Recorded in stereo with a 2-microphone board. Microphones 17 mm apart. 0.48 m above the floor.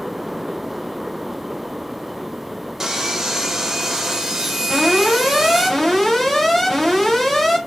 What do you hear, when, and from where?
2.8 s sawing: 25° right (ahead or behind), 1.0 m
4.7 s an alarm: 20° left (ahead or behind), 2.5 m